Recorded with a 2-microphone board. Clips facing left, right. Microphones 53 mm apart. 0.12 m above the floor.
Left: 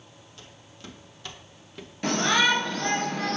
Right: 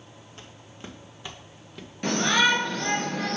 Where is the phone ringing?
I don't hear a phone ringing.